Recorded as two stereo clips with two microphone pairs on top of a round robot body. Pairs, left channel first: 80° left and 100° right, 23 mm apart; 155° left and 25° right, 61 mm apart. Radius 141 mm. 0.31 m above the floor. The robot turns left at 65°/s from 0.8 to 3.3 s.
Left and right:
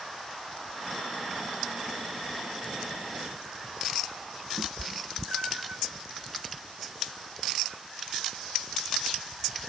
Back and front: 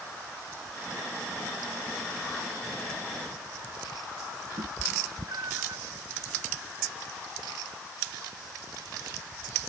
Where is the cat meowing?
60° right.